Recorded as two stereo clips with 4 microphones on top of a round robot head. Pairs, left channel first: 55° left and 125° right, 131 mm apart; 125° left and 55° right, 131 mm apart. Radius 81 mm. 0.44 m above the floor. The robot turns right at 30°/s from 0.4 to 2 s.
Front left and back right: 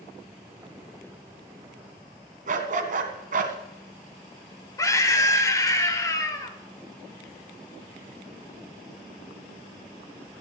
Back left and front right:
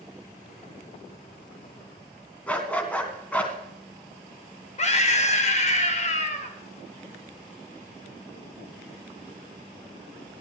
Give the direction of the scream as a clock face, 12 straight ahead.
8 o'clock.